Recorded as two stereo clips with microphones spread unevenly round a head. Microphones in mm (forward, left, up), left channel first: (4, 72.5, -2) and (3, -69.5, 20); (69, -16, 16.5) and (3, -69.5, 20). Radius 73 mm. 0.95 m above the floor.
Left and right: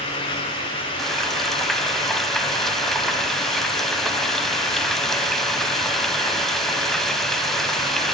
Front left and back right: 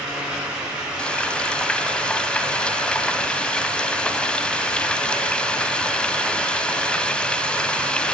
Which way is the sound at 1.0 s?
25° right.